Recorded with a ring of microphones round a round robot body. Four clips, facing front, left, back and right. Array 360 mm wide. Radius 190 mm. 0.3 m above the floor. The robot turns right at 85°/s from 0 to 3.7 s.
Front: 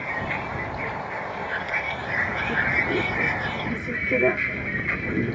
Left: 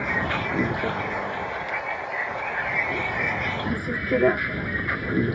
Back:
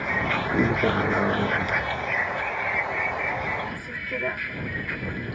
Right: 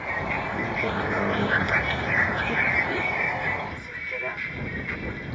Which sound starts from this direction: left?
A vehicle, at 0.0 s.